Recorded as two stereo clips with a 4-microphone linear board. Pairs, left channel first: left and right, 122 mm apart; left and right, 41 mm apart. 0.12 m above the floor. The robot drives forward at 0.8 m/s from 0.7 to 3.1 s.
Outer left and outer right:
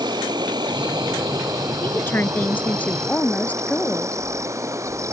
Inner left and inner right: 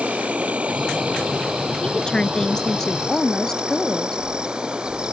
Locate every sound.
0.0 s an insect: 35° right (ahead or behind); by 5.1 s 25° right (ahead or behind)
1.8 s a woman speaking: 20° left (ahead or behind); by 4.2 s 15° left (ahead or behind)